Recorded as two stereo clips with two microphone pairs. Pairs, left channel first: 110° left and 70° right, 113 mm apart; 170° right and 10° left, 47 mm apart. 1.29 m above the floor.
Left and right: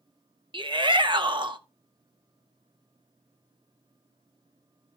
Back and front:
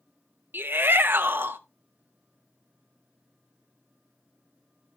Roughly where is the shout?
Ahead right.